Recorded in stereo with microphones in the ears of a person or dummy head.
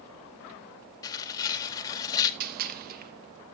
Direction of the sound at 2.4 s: 55° right (ahead or behind).